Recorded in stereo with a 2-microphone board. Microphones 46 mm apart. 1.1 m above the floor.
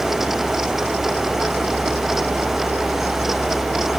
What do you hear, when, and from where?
Only background noise.